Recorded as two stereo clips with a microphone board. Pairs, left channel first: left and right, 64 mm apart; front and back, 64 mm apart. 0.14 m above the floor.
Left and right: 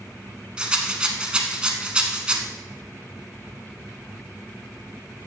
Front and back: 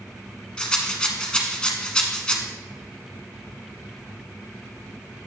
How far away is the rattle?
About 1.0 m.